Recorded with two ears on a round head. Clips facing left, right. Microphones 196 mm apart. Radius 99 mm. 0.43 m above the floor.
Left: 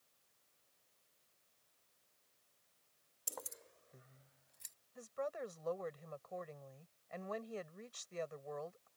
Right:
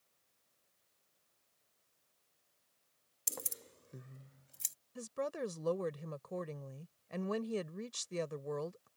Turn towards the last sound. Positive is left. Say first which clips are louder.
# right 4 dB
turn(degrees=-50)  # may be behind; listen again after turning